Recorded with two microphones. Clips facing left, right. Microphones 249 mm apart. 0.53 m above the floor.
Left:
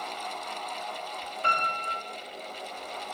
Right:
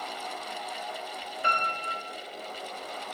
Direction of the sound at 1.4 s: 20° right (ahead or behind).